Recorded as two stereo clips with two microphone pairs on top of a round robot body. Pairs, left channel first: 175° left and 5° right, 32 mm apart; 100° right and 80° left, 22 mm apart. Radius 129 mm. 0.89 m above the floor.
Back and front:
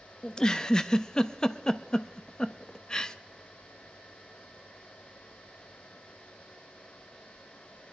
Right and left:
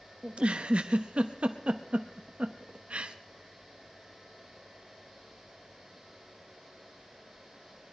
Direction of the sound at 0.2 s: 105° left.